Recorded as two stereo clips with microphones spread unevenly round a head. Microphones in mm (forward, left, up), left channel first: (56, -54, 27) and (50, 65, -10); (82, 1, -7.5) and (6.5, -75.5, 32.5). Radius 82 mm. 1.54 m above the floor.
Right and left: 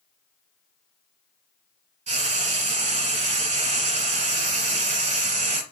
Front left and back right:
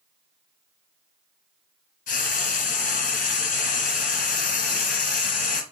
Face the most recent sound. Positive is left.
turn(degrees=65)